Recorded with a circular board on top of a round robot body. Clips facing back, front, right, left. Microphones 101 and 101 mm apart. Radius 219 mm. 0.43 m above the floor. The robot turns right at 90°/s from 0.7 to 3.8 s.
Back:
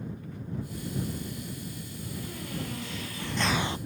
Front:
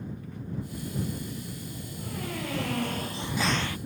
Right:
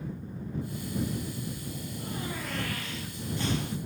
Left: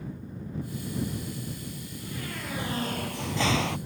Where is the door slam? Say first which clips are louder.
Front 2 dB, right 2 dB; 70° right; by 3.8 s 120° left.